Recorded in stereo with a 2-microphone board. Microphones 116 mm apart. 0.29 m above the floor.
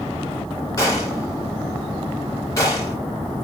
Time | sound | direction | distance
0.8 | a gunshot | 30° left (ahead or behind) | 2.5 m